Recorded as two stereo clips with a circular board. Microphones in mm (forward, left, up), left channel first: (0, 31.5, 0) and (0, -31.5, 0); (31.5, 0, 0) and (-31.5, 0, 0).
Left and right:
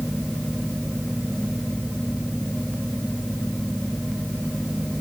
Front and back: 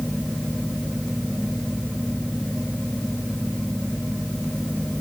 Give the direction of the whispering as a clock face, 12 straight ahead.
I don't hear whispering.